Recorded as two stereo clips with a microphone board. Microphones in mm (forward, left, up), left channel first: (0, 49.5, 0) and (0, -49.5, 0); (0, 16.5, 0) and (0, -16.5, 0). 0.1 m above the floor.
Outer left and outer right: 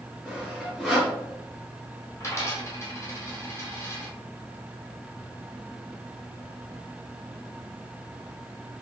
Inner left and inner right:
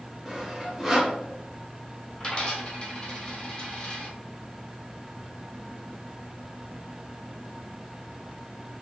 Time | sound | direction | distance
0.2 | sawing | centre (ahead or behind) | 1.6 m
2.2 | a dropped coin | 30° left (ahead or behind) | 1.6 m